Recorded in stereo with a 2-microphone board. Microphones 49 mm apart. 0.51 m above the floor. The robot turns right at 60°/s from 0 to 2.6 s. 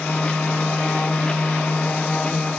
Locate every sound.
Only background noise.